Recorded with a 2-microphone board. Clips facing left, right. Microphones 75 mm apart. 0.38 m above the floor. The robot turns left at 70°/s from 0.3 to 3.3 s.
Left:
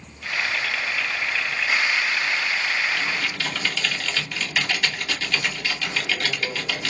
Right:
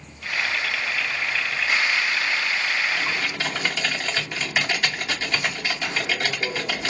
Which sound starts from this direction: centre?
Typing on a keyboard, at 2.9 s.